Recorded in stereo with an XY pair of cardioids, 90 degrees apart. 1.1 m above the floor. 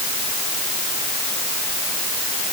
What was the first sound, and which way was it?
Only background noise.